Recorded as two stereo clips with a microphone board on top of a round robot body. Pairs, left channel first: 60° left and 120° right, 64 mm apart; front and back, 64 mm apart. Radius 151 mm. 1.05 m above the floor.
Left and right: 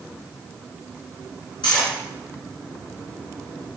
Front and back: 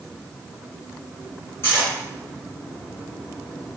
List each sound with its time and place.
1.6 s cutlery clinking: 55° left, 0.9 m